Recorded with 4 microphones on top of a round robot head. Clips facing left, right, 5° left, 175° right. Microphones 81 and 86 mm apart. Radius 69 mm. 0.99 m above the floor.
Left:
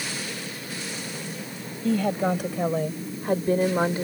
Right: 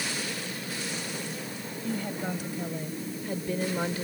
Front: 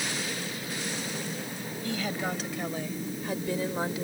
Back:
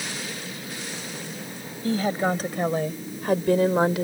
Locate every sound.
1.8 s a woman speaking: 130° left; by 4.0 s 165° left